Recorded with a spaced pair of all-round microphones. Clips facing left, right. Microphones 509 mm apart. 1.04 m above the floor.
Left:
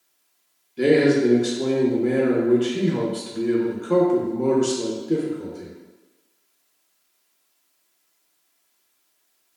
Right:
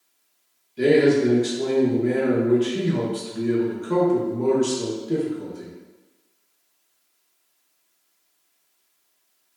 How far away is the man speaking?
About 0.6 m.